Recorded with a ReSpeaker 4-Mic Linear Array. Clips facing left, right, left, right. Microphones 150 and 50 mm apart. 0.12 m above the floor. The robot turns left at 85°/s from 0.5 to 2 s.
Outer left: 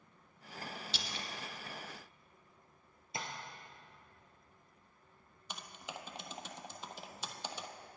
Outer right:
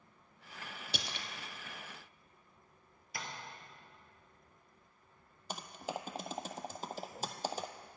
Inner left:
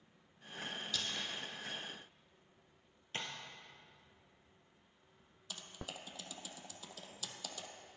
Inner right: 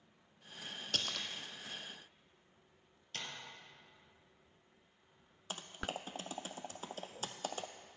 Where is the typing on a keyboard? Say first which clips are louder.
Outer right 7 dB, inner right 6 dB; 40° right (ahead or behind), 0.7 m.